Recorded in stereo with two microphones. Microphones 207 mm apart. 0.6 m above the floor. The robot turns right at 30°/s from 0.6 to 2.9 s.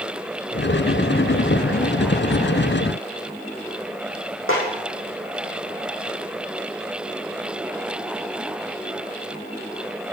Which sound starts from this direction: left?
A snare drum, at 4.5 s.